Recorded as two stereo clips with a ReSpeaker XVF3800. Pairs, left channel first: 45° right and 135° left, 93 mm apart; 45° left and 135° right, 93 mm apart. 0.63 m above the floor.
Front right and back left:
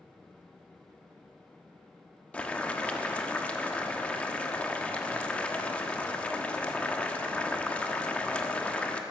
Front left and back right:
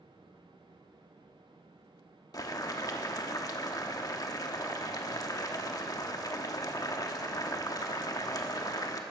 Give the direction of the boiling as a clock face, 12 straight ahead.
11 o'clock.